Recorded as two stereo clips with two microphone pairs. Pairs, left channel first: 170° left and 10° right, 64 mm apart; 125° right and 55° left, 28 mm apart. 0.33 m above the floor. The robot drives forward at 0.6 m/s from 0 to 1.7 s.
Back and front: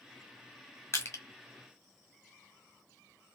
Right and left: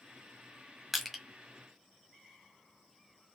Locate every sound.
0.9 s crushing: 140° left, 1.2 m; by 1.2 s 145° left, 1.3 m